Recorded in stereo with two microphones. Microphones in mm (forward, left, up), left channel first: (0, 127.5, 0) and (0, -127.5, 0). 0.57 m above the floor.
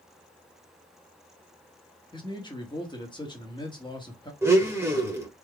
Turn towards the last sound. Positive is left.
turn(degrees=-10)  # may be behind; listen again after turning